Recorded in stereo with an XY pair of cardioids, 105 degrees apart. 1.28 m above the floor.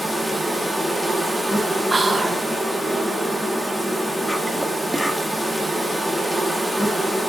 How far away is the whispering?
About 1.0 m.